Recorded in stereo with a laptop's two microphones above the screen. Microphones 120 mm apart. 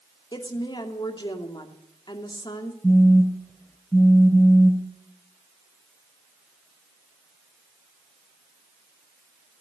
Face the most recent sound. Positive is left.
turn(degrees=15)  # may be behind; listen again after turning